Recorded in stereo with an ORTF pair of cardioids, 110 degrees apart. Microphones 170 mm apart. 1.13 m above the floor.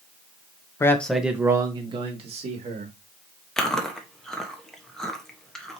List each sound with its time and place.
0.8 s a man speaking: 15° left, 0.9 m; by 2.9 s 50° right, 1.9 m
3.6 s chewing: 5° left, 1.0 m